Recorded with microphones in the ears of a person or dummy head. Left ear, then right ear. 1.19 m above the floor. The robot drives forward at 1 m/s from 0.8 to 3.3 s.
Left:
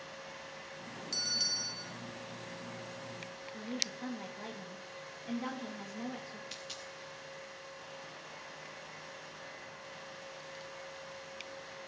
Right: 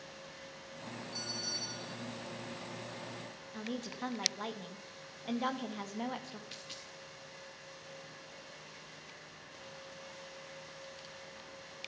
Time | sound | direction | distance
1.1 | a bell | 60° left (ahead or behind) | 1.8 m
3.5 | a woman speaking | 30° right (ahead or behind) | 1.5 m
6.5 | a dropped coin | 10° left (ahead or behind) | 0.7 m